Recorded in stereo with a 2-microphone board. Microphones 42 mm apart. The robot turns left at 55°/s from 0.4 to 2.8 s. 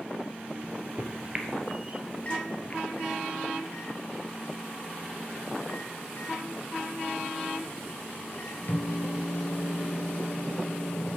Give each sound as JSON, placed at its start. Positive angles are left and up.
{"t": 0.6, "sound": "a microwave", "side_deg": -60, "distance_m": 2.5}